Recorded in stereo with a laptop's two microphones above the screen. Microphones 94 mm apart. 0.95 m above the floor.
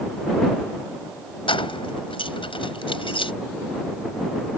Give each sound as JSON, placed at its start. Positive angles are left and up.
{"t": 1.5, "sound": "keys jangling", "side_deg": 70}